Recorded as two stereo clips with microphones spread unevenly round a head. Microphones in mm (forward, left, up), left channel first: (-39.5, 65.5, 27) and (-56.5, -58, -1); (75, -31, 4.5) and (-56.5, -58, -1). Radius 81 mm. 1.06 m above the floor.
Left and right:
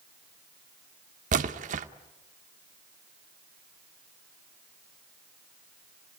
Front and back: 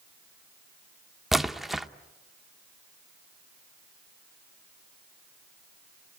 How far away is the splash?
About 0.9 m.